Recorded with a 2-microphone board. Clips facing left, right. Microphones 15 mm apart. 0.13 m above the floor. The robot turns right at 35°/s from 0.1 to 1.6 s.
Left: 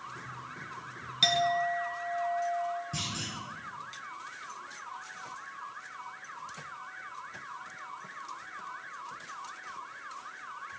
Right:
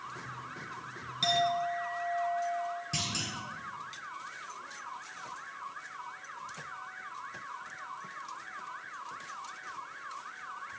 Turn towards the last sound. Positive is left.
turn(degrees=-45)  # may be behind; listen again after turning